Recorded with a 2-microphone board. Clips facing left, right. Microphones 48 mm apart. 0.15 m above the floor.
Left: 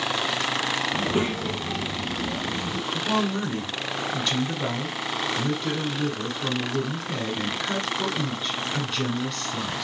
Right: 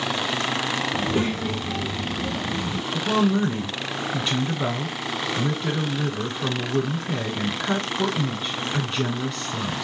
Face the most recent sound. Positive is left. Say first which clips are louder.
# right 5 dB
turn(degrees=-20)  # may be behind; listen again after turning